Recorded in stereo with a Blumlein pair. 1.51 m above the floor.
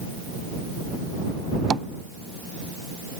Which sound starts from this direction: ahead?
Tapping, at 1.7 s.